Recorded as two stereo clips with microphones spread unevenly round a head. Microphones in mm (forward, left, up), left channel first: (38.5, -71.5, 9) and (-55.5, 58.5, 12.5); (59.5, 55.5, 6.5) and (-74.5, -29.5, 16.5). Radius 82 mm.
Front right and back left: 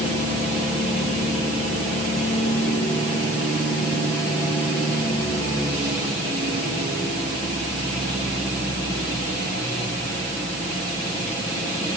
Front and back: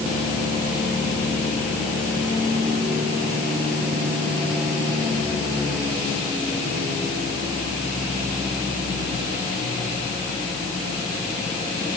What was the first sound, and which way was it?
Only background noise.